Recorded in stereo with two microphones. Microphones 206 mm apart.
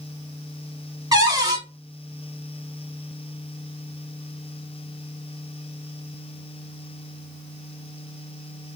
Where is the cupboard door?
20° right (ahead or behind), 1.2 m.